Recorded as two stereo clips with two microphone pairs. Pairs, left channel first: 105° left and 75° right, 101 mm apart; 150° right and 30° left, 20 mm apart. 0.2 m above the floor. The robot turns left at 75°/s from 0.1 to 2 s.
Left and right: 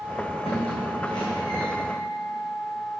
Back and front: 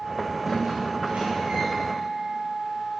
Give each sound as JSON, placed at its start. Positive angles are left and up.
{"t": 0.5, "sound": "a squeak", "azimuth_deg": 115, "distance_m": 4.5}